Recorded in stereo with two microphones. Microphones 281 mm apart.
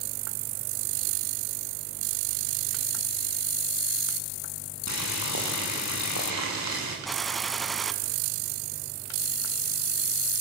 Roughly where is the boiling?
Left.